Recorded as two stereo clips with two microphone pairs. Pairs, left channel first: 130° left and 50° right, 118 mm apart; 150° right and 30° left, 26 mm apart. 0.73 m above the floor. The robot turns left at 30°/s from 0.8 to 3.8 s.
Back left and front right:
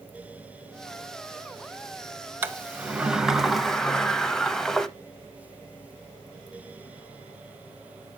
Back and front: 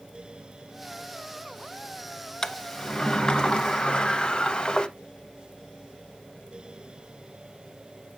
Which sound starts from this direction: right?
A sliding door, at 2.4 s.